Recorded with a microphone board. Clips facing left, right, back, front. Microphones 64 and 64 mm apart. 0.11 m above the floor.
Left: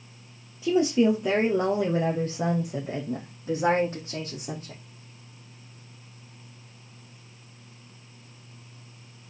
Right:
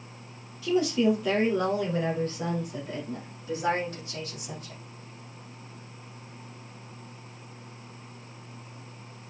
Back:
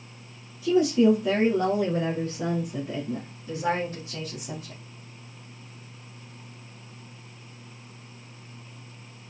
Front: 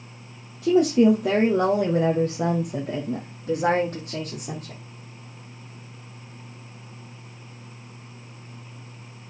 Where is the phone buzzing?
No phone buzzing in this recording.